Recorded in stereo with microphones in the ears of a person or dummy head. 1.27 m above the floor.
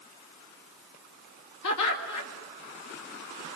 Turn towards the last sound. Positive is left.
turn(degrees=80)